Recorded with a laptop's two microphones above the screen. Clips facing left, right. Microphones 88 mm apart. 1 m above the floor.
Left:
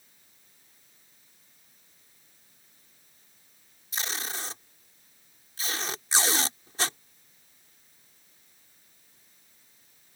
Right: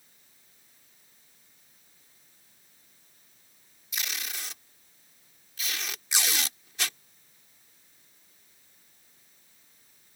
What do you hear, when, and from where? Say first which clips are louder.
3.9 s tape being pulled: left 3 dB; 35° left (ahead or behind)